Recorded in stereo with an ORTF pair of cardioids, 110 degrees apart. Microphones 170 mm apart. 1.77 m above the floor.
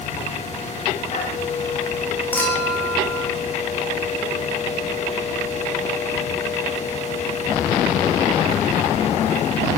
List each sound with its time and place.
0.0 s a machine running: 40° left, 6.5 m
2.3 s a clink: 10° left, 8 m